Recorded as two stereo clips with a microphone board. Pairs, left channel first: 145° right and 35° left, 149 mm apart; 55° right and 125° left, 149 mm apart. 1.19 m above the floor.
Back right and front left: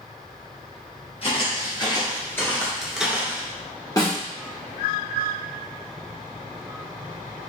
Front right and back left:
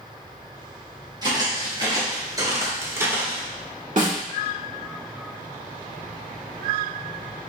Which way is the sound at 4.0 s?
150° left.